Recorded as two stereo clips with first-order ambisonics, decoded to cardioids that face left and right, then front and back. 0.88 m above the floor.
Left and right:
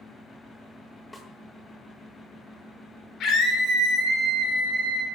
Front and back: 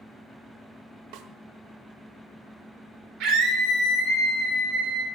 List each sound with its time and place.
1.1 s a snare drum: 170° left, 1.0 m
3.2 s a scream: 145° left, 2.5 m